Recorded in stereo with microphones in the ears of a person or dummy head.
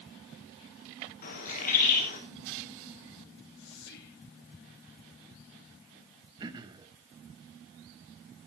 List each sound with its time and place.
1.2 s a bird: 45° left (ahead or behind), 3.5 m
3.6 s whispering: 55° left (ahead or behind), 2.5 m
6.4 s throat clearing: 25° right (ahead or behind), 1.4 m